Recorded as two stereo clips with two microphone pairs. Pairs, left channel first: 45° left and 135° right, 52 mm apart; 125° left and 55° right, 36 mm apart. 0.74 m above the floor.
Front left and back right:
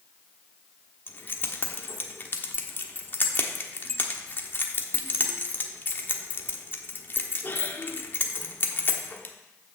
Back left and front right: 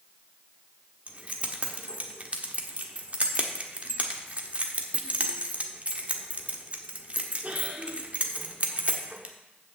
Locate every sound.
1.1 s keys jangling: 5° right, 1.2 m